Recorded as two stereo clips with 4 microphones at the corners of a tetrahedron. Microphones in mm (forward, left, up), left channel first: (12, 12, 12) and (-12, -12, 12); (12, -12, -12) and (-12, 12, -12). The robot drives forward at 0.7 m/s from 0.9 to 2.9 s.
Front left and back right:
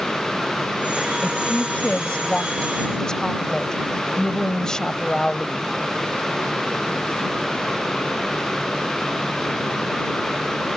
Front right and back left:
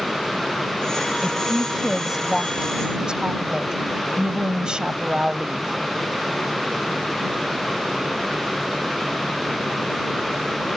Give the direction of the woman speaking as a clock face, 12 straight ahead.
11 o'clock.